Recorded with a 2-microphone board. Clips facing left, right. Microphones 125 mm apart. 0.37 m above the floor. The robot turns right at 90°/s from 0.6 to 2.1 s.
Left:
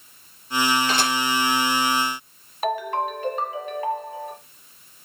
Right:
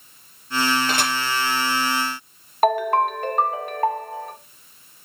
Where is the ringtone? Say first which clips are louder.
Right 6 dB; 55° right (ahead or behind), 1.2 m.